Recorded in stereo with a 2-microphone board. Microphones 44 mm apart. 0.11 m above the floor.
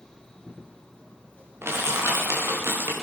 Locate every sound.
1.6 s crushing: 65° right (ahead or behind), 4.5 m